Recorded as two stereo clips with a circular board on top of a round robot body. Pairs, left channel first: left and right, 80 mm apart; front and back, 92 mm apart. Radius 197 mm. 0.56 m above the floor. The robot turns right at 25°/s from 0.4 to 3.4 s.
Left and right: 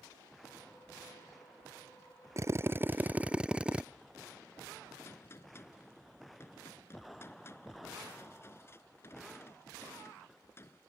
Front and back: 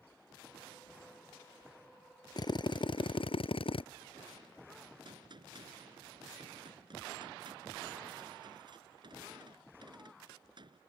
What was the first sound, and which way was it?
A drill, 40° right.